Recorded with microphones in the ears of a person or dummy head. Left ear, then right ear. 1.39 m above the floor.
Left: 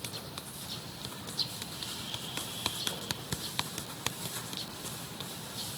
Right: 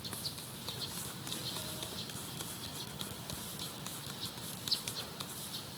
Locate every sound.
Only background noise.